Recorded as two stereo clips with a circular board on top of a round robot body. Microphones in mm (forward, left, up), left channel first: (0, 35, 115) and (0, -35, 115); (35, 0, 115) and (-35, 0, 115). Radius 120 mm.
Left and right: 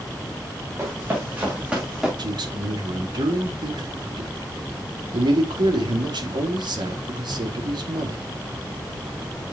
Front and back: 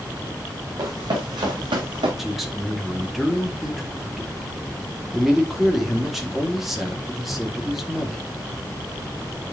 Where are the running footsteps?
150° right, 3.5 m; by 2.1 s 175° right, 3 m.